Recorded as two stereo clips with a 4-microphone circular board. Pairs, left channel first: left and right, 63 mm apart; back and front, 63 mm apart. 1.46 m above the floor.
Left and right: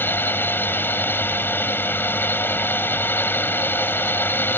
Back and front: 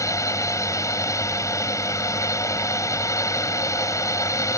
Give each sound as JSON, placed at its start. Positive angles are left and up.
{"t": 0.0, "sound": "a drone", "azimuth_deg": 145}